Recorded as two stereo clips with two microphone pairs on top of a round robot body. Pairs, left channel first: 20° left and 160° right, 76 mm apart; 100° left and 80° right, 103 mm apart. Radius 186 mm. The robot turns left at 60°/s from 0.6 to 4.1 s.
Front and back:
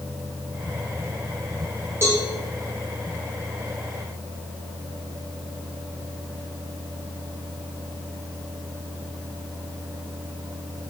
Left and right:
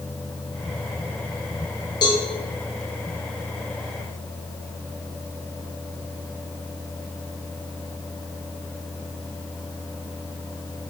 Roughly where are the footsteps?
No footsteps in this recording.